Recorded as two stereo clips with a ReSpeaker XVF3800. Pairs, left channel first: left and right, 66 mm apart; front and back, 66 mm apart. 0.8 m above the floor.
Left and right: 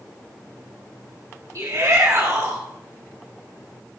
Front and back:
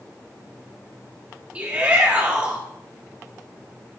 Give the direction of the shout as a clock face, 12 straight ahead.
4 o'clock.